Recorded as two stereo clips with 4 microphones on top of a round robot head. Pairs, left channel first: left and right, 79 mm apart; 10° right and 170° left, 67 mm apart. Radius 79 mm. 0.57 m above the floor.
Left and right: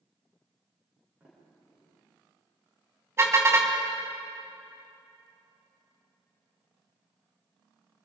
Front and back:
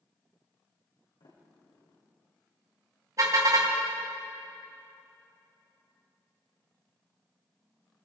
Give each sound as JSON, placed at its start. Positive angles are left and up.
{"t": 1.2, "sound": "a sliding door", "azimuth_deg": -15, "distance_m": 7.5}
{"t": 3.2, "sound": "a car horn", "azimuth_deg": -145, "distance_m": 3.0}